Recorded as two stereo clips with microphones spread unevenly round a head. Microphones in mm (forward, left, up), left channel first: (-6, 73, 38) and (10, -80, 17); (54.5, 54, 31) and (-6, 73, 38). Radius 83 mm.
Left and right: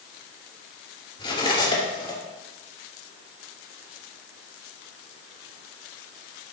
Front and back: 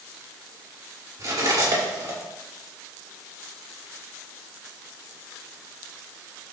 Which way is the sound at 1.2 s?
155° left.